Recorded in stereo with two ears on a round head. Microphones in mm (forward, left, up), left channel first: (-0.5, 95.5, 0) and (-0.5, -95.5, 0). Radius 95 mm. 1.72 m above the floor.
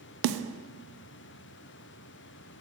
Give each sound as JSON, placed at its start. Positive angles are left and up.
{"t": 0.2, "sound": "a snare drum", "side_deg": -65, "distance_m": 0.5}